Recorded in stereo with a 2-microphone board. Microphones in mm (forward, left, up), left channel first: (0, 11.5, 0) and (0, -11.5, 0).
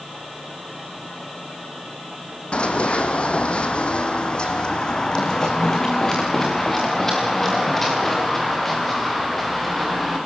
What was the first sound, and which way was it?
Running footsteps, 55° left (ahead or behind).